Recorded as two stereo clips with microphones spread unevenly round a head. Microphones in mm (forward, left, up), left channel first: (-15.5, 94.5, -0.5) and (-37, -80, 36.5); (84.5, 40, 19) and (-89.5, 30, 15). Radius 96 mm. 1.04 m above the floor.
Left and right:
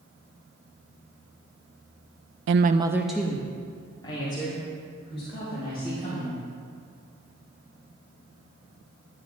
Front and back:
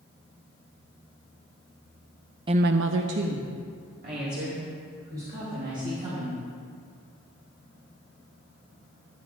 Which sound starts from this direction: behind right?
A woman speaking, at 2.5 s.